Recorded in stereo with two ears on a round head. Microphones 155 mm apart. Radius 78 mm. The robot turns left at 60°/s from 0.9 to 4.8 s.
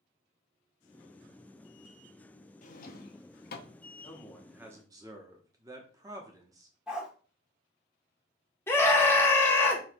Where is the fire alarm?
I don't hear a fire alarm.